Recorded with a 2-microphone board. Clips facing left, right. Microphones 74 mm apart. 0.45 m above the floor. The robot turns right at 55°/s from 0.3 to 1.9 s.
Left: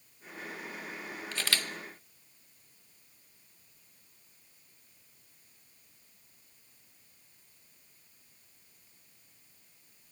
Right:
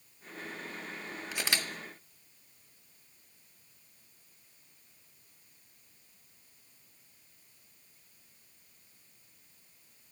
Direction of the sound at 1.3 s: 10° right (ahead or behind).